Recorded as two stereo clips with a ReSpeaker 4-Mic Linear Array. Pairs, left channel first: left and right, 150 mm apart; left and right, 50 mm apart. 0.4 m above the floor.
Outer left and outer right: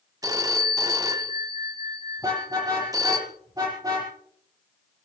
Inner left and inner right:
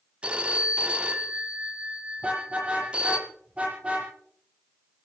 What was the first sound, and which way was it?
A phone ringing, 25° right (ahead or behind).